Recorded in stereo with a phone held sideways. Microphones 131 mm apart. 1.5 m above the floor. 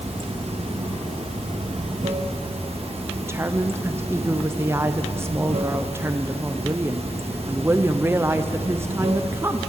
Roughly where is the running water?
Right.